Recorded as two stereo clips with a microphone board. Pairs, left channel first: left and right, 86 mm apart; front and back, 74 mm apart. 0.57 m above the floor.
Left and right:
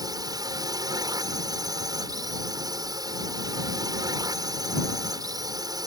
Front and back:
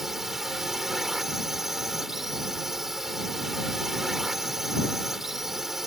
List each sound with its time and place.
0.0 s a drone: 95° right